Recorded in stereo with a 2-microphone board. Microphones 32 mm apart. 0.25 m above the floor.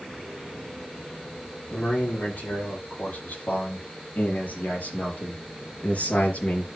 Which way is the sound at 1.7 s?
75° left (ahead or behind).